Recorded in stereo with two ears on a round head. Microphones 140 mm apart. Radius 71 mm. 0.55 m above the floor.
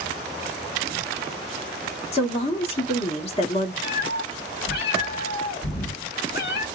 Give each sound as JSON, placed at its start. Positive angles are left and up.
{"t": 2.1, "sound": "a woman speaking", "side_deg": 40, "distance_m": 1.1}
{"t": 3.8, "sound": "a cat meowing", "side_deg": 70, "distance_m": 2.5}